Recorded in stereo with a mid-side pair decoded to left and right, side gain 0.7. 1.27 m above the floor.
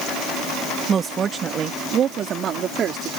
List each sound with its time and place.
0.9 s a woman speaking: 30° right; by 3.1 s 45° right